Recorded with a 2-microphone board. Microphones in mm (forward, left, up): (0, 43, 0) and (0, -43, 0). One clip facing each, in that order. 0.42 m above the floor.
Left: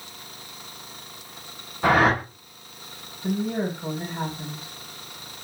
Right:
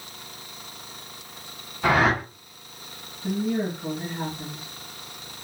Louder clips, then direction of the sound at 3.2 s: Even; 50° left (ahead or behind).